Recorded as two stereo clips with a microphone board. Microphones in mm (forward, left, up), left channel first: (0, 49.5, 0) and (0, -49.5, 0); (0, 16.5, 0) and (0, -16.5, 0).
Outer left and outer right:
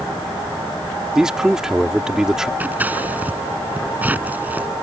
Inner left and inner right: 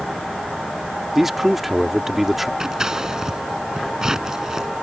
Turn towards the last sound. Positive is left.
turn(degrees=-15)  # may be behind; listen again after turning